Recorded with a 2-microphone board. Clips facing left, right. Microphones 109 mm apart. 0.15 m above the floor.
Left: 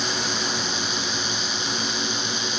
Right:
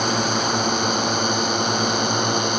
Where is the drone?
55° right (ahead or behind).